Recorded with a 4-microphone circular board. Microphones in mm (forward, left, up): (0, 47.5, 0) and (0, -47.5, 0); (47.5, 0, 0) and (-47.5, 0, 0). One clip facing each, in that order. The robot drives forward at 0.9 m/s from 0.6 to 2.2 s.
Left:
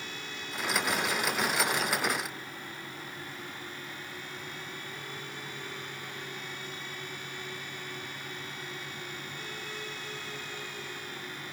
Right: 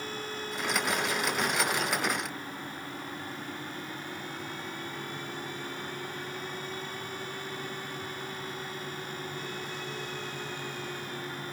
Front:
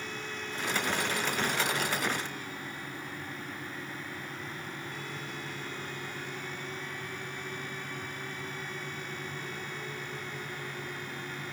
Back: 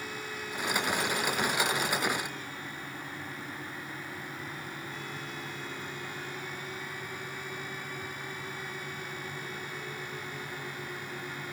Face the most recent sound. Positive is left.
No sound to turn to.